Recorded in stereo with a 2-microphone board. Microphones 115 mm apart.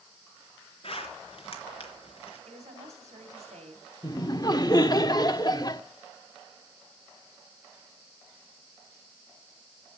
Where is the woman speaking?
75° right (ahead or behind), 3 m.